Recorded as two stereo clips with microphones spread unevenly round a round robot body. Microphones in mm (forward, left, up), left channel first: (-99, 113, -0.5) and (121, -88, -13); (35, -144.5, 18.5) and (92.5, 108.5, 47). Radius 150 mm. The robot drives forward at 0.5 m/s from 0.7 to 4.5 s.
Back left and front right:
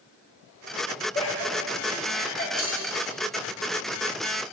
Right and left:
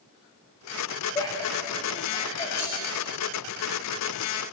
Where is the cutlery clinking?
160° right, 3 m.